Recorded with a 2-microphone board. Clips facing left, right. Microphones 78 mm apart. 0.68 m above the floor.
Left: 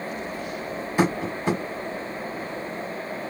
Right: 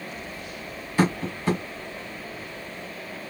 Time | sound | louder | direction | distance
1.0 | tapping | left 1 dB | 15° left (ahead or behind) | 1.5 m